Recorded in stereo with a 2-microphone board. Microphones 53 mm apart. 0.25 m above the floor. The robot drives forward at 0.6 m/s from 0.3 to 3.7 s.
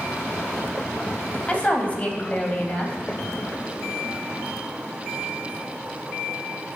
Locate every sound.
1.5 s a woman speaking: 25° left (ahead or behind), 1.1 m